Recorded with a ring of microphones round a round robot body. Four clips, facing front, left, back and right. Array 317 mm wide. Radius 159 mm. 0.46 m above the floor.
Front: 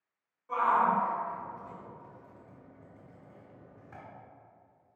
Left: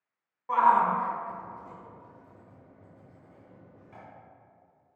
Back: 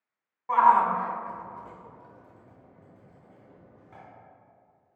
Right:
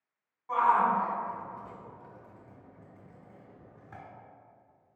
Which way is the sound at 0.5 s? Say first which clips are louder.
Left 3 dB, back 6 dB; 150° left.